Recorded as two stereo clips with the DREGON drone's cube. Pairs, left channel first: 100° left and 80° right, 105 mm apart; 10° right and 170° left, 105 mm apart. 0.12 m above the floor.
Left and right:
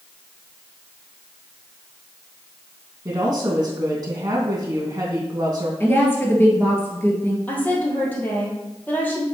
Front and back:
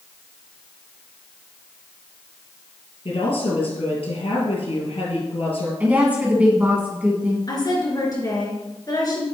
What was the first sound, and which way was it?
A woman speaking, 30° right.